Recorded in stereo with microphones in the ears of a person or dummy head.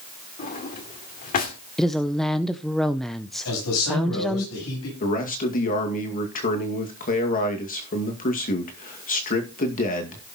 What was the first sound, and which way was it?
A drawer, 40° left (ahead or behind).